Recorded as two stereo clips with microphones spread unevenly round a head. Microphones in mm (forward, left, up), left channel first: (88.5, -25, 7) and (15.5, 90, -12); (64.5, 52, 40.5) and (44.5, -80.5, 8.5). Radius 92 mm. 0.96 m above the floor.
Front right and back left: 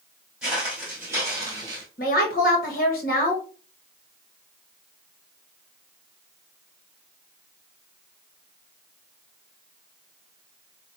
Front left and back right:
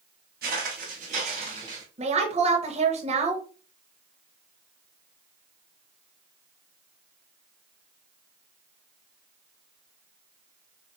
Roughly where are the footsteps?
Behind right.